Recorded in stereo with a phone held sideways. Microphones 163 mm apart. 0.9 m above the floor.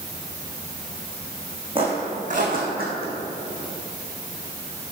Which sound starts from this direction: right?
Footsteps, at 1.8 s.